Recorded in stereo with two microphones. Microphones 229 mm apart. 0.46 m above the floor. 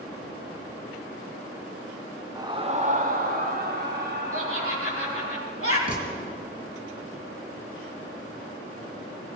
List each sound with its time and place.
2.4 s a scream: 15° right (ahead or behind), 1.0 m; by 5.3 s 50° right (ahead or behind), 4.5 m
4.3 s laughter: 75° right (ahead or behind), 5 m
5.9 s a gunshot: 35° left (ahead or behind), 3 m